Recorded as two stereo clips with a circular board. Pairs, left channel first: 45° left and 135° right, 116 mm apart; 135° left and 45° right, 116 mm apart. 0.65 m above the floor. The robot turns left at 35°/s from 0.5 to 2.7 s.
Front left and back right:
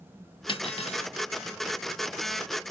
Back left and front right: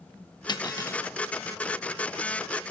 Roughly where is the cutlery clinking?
Left.